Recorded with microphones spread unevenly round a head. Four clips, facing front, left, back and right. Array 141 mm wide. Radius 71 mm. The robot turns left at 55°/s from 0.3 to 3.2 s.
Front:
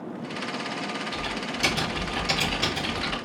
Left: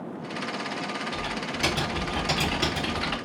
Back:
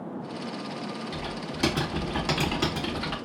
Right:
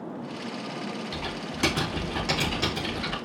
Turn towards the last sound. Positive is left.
turn(degrees=140)